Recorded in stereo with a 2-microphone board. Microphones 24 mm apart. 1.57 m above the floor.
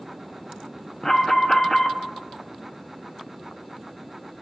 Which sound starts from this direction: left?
An alarm, at 1.0 s.